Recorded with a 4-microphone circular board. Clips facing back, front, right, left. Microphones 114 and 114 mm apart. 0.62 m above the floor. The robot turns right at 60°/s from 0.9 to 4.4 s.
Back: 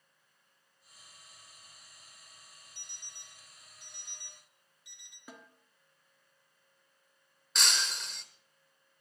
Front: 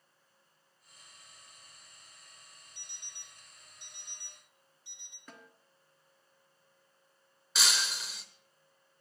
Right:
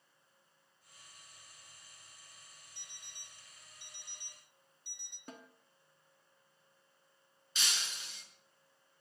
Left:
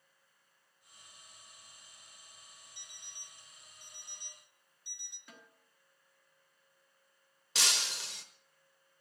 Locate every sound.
2.8 s an alarm clock: 160° right, 2 m; by 5.2 s 60° right, 2 m
5.3 s a snare drum: 105° right, 1.4 m
7.5 s breaking glass: 85° left, 1.0 m